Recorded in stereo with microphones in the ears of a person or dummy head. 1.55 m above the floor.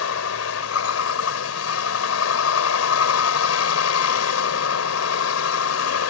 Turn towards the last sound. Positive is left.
turn(degrees=85)